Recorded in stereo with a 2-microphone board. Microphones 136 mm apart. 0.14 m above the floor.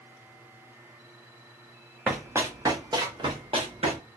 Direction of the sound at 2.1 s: 10° right (ahead or behind).